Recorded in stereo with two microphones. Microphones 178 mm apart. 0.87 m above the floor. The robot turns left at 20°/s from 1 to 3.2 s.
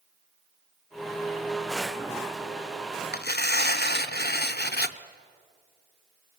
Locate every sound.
3.1 s tearing paper: 60° left (ahead or behind), 0.7 m